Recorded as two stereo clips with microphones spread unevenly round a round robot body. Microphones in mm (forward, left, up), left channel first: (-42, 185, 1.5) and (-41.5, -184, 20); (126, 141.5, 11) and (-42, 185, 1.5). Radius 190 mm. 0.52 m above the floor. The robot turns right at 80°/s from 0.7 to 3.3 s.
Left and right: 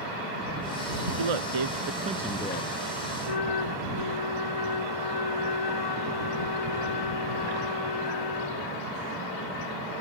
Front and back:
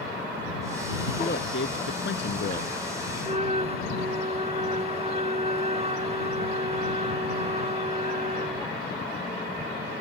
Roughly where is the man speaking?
Right.